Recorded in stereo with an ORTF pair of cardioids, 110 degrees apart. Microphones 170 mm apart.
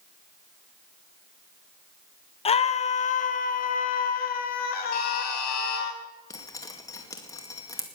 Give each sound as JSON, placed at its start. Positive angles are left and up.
{"t": 2.5, "sound": "a scream", "azimuth_deg": 35, "distance_m": 1.4}
{"t": 4.9, "sound": "a buzzer", "azimuth_deg": 65, "distance_m": 4.0}
{"t": 6.3, "sound": "dripping", "azimuth_deg": 20, "distance_m": 2.0}